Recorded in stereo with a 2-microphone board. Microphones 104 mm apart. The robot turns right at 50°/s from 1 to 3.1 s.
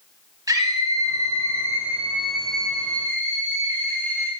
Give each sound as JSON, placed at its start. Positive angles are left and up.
{"t": 0.5, "sound": "a scream", "azimuth_deg": -70, "distance_m": 1.3}